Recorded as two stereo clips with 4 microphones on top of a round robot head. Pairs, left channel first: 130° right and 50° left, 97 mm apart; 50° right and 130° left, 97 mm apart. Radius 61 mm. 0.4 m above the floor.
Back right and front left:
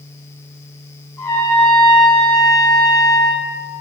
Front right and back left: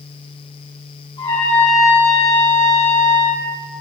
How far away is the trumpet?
About 4 m.